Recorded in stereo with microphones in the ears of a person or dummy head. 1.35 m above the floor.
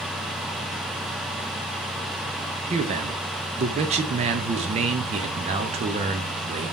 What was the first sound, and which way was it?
A man speaking, 30° right (ahead or behind).